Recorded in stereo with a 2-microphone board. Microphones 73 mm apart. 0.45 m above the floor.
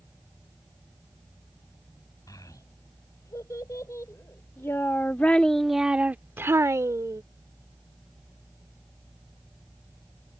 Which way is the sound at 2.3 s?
55° left (ahead or behind).